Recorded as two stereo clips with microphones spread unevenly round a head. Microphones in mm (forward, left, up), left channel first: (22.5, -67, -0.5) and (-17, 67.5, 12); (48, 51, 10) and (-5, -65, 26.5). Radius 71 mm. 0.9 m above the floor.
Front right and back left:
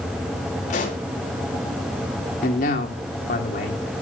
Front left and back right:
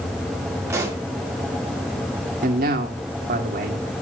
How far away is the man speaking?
About 2 m.